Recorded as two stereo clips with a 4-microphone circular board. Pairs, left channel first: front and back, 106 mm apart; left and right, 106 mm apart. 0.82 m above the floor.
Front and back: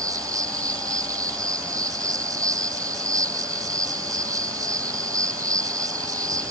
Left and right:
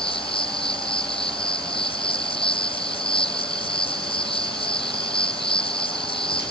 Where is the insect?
125° left.